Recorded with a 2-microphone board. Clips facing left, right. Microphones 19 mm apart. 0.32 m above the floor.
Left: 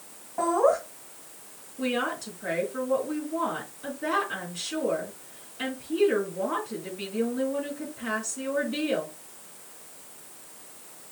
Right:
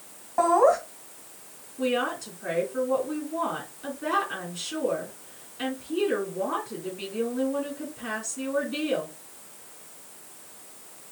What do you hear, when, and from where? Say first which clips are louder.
0.4 s laughter: right 3 dB; 35° right (ahead or behind), 2.5 m
1.8 s a woman speaking: right 2 dB; centre (ahead or behind), 3 m